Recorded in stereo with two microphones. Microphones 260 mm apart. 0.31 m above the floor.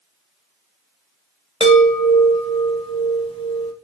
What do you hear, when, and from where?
1.6 s a chime: 20° left (ahead or behind), 1.1 m